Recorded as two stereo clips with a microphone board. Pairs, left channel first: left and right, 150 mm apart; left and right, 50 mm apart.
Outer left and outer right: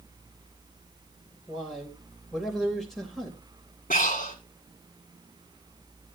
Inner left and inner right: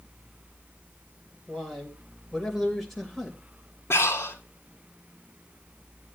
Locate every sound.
1.5 s a man speaking: centre (ahead or behind), 3 m
3.9 s breathing: 60° left (ahead or behind), 2 m